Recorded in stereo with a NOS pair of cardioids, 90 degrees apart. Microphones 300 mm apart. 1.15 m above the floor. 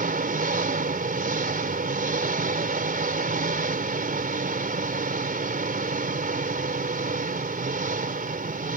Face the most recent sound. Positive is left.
turn(degrees=-30)